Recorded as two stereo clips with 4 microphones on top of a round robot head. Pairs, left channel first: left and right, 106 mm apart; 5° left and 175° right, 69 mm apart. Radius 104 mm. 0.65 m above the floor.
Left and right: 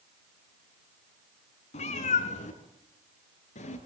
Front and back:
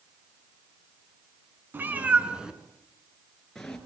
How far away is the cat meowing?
About 3 m.